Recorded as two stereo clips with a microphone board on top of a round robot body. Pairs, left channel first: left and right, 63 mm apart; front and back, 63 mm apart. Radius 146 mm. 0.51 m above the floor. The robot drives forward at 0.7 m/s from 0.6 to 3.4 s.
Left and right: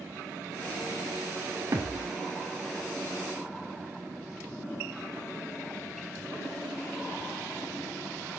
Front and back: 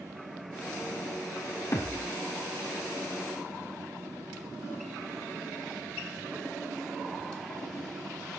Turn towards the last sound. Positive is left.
turn(degrees=-60)